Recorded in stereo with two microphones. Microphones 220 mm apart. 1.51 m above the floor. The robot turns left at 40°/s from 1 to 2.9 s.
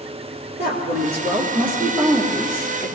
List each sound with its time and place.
0.6 s a woman speaking: 130° right, 2.5 m; by 3.0 s 155° left, 2.5 m